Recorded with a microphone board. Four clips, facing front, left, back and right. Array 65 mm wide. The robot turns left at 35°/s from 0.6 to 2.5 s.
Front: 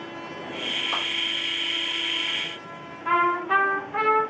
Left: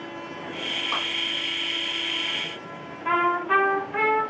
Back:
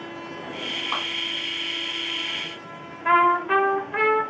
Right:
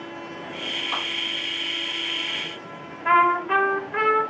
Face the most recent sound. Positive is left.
turn(degrees=-160)